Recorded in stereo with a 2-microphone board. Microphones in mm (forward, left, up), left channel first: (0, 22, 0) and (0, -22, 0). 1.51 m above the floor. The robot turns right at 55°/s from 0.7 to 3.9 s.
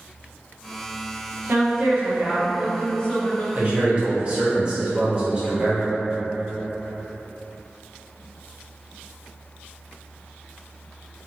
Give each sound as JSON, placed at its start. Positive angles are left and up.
{"t": 1.5, "sound": "a woman speaking", "azimuth_deg": -70, "distance_m": 1.1}
{"t": 3.5, "sound": "a man speaking", "side_deg": -40, "distance_m": 0.9}